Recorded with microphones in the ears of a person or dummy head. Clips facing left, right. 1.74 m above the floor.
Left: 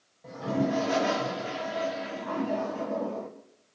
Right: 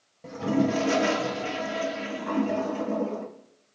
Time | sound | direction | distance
0.2 | a toilet flushing | 55° right (ahead or behind) | 1.9 m